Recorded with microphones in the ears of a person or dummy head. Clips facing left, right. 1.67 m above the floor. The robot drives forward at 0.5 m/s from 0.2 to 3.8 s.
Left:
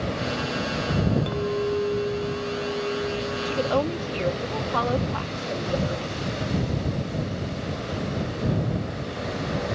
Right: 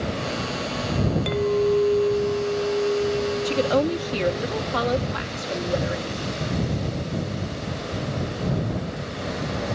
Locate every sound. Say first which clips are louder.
1.3 s a clink: right 5 dB; 30° right (ahead or behind)
3.5 s a woman speaking: right 2 dB; 25° right (ahead or behind)